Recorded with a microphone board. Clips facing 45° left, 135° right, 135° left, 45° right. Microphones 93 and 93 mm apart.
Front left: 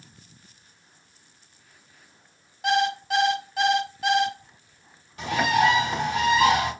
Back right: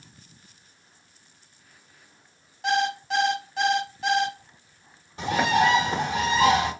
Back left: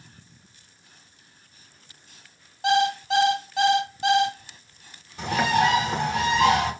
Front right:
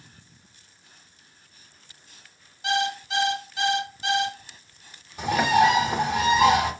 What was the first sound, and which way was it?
An alarm clock, 130° left.